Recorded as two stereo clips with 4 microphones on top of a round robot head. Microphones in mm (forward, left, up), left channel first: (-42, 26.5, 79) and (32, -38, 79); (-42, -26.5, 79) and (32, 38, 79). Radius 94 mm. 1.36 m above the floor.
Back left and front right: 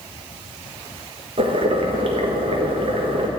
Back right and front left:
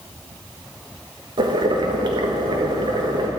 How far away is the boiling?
About 1.4 m.